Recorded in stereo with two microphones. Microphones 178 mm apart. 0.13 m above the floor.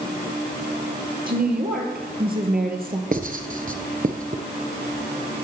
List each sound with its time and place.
1.3 s a woman speaking: 55° right (ahead or behind), 3 m
3.1 s writing: 50° right (ahead or behind), 1.1 m